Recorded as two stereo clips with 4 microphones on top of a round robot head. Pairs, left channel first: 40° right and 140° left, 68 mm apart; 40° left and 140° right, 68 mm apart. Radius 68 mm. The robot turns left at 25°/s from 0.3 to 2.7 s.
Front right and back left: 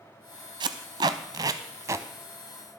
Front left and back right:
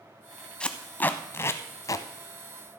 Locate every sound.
0.6 s tape being pulled: 120° left, 0.5 m; by 2.1 s 85° left, 0.5 m